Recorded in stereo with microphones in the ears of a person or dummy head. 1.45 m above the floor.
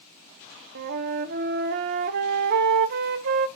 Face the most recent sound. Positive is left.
turn(degrees=-55)  # may be behind; listen again after turning